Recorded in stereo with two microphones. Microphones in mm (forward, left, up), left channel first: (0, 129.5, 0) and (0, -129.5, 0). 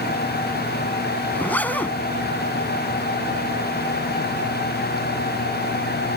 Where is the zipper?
5° left (ahead or behind).